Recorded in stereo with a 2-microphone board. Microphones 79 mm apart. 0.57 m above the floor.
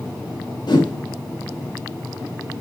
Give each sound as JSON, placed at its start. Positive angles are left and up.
{"t": 0.7, "sound": "a whoosh", "side_deg": 65, "distance_m": 1.9}